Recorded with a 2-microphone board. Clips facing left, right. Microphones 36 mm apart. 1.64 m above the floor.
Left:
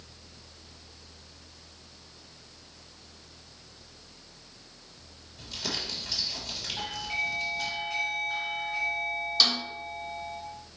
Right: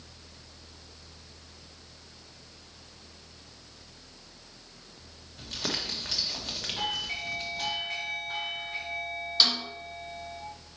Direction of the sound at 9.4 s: 15° right (ahead or behind).